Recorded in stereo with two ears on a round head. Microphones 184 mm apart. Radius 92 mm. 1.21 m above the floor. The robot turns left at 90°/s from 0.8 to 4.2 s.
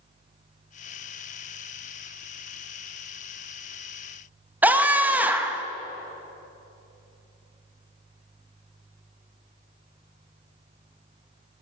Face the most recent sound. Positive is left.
turn(degrees=-10)  # may be behind; listen again after turning